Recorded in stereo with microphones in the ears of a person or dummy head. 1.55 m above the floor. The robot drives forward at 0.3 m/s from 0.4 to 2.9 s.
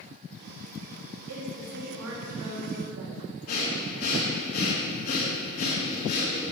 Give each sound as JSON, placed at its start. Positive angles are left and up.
{"t": 1.3, "sound": "a woman speaking", "side_deg": -75, "distance_m": 3.0}
{"t": 3.5, "sound": "breathing", "side_deg": 55, "distance_m": 2.5}